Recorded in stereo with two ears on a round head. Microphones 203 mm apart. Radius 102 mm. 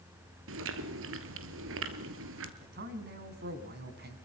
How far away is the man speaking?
About 5 m.